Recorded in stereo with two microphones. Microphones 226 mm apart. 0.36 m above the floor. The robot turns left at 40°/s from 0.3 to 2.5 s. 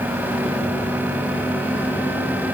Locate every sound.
Only background noise.